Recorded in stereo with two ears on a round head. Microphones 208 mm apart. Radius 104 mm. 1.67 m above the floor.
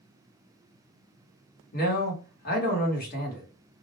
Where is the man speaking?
40° left (ahead or behind), 1.0 m.